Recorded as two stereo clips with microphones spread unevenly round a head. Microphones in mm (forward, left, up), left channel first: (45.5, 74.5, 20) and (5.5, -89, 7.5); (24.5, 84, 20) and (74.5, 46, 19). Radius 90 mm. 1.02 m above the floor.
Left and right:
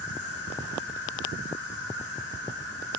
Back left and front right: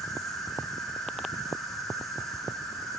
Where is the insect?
60° left, 4 m.